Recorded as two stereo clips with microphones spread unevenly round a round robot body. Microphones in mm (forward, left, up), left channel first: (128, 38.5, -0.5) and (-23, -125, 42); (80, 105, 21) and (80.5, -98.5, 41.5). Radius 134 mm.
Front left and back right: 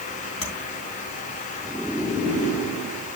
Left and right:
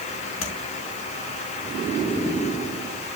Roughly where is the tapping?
Left.